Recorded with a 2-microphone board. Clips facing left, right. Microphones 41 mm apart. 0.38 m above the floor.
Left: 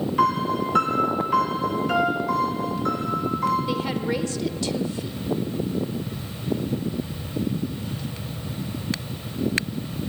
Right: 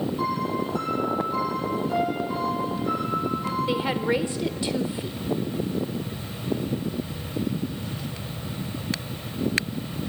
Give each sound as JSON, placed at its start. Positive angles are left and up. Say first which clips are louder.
{"t": 0.2, "sound": "a piano", "louder": "left 9 dB", "side_deg": 80, "distance_m": 2.0}
{"t": 2.3, "sound": "a piano", "louder": "left 3 dB", "side_deg": 70, "distance_m": 4.5}
{"t": 3.7, "sound": "a woman speaking", "louder": "right 1 dB", "side_deg": -20, "distance_m": 1.2}